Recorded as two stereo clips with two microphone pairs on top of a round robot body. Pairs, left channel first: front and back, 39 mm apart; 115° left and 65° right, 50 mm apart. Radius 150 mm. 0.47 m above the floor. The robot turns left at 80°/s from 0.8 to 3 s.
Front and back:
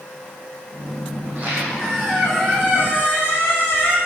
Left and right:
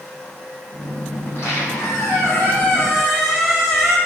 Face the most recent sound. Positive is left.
turn(degrees=25)